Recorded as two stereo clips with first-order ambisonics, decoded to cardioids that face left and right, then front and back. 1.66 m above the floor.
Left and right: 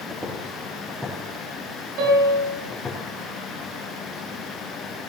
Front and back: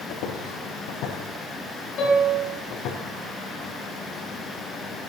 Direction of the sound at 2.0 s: 55° right.